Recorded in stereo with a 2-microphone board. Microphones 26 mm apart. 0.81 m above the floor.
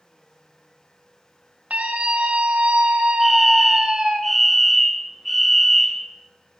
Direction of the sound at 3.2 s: 10° left (ahead or behind).